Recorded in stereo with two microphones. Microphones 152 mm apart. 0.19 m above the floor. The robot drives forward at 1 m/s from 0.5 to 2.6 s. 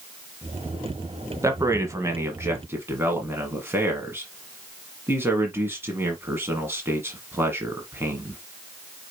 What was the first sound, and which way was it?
A man speaking, 20° right (ahead or behind).